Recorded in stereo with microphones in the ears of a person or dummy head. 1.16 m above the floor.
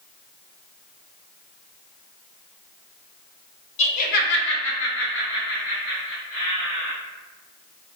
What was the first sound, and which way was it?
Laughter, 35° left (ahead or behind).